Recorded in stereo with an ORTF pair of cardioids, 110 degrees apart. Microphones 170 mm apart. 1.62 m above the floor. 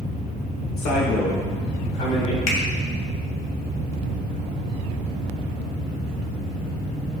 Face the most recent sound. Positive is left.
turn(degrees=50)